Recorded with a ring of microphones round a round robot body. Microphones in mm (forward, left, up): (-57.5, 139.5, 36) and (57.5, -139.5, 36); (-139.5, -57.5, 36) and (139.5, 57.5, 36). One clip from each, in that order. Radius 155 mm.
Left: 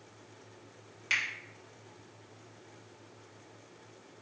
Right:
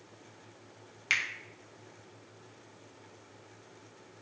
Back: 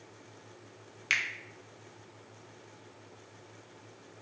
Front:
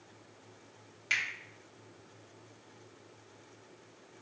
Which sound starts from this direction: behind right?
A finger snap, at 1.1 s.